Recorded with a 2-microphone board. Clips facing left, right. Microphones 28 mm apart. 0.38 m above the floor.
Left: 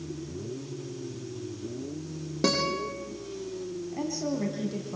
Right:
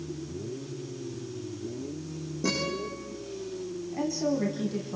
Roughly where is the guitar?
Left.